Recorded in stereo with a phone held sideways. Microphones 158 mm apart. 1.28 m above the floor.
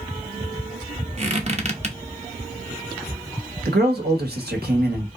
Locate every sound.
1.2 s a squeak: 45° right (ahead or behind), 1.1 m
3.6 s a man speaking: 90° right, 1.6 m